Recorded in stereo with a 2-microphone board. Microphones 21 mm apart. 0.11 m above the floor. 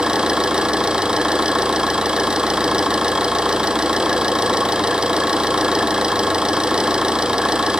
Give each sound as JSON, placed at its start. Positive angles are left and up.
{"t": 0.0, "sound": "an engine running", "side_deg": -50, "distance_m": 2.5}